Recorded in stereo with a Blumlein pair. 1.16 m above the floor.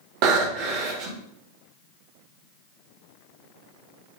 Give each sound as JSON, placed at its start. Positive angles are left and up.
{"t": 0.2, "sound": "breathing", "azimuth_deg": -45, "distance_m": 1.1}